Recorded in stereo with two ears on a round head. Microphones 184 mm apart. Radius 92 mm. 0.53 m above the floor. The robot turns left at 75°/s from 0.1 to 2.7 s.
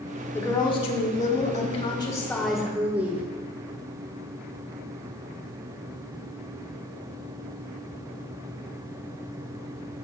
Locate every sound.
0.3 s a woman speaking: 165° left, 1.4 m; by 3.2 s 15° right, 1.4 m